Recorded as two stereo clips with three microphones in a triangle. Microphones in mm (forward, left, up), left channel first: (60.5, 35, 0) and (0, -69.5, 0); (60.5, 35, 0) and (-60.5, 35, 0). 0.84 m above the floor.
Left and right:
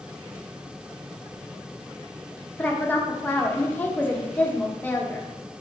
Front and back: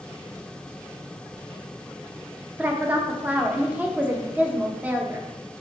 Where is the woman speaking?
120° left, 0.6 m.